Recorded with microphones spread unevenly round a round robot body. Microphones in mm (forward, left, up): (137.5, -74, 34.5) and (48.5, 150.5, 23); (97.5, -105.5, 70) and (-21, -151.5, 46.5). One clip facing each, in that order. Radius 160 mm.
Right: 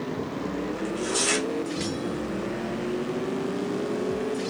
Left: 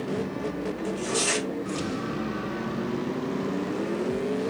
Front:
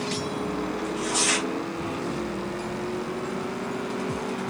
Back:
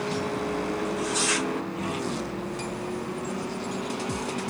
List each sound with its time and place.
0.8 s tearing paper: straight ahead, 3 m